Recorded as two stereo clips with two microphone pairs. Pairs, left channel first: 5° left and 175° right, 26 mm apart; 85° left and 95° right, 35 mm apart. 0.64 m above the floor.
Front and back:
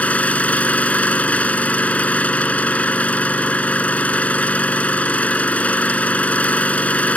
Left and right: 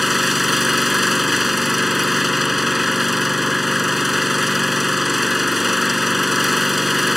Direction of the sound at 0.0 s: 10° right.